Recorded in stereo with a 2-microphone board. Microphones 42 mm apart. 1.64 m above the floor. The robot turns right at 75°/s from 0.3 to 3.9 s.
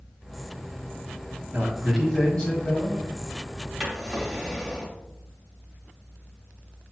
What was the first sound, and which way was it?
A man speaking, 45° right.